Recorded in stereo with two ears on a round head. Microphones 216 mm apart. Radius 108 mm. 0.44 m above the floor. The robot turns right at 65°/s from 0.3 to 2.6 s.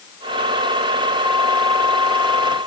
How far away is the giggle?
No giggle in this recording.